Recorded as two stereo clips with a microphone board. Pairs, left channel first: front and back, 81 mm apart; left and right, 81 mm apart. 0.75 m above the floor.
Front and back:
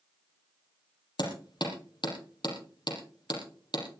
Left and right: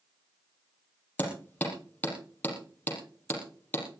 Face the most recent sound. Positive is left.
turn(degrees=20)